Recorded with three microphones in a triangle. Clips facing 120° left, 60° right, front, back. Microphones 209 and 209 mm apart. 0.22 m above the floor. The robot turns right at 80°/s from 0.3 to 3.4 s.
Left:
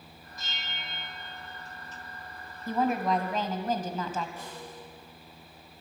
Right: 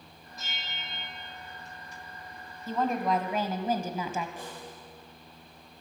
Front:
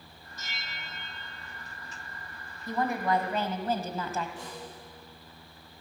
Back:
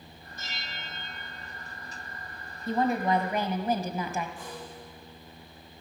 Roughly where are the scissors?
I don't hear scissors.